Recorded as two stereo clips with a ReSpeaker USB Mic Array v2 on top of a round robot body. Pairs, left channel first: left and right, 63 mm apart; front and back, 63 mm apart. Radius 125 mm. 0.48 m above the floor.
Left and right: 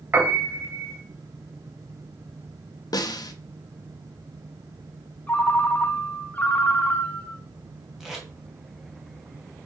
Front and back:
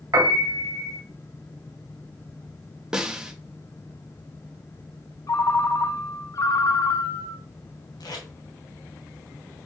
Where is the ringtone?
25° left, 1.3 m.